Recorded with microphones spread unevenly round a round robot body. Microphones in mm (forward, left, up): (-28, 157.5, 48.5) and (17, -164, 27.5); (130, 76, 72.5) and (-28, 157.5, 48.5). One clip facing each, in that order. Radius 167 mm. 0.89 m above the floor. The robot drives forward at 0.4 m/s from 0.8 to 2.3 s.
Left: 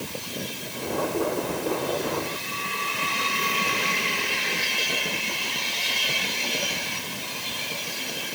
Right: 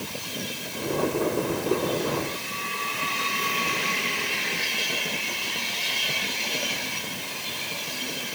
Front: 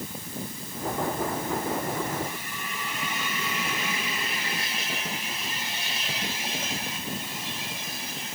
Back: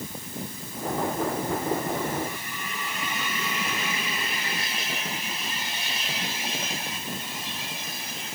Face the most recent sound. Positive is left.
No sound to turn to.